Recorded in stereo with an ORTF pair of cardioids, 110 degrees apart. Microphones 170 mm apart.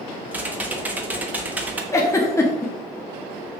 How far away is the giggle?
About 1.4 m.